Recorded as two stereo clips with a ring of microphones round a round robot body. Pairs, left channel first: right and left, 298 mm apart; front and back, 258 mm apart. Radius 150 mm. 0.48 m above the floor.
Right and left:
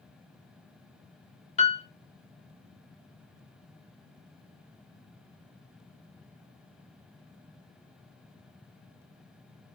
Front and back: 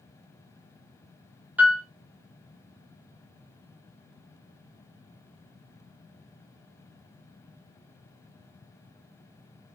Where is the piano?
105° right, 0.6 m.